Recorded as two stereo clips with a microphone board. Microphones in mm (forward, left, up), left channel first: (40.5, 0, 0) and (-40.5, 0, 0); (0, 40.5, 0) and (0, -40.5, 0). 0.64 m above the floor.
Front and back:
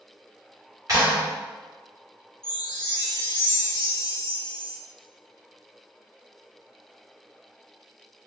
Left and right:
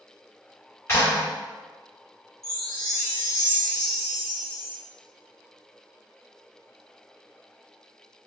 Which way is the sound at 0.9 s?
145° left.